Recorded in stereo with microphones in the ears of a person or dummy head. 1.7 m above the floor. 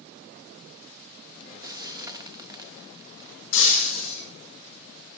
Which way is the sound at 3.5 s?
75° left (ahead or behind).